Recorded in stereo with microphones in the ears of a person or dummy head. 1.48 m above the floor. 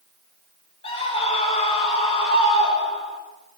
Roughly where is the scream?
Left.